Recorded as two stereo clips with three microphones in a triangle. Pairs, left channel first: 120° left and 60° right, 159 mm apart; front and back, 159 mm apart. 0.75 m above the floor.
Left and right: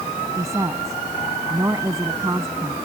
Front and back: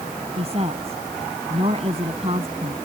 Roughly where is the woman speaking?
Behind right.